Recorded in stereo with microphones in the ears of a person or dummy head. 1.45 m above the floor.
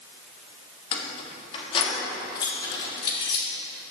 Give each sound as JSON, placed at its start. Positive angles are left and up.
{"t": 0.9, "sound": "keys jangling", "side_deg": 40, "distance_m": 1.3}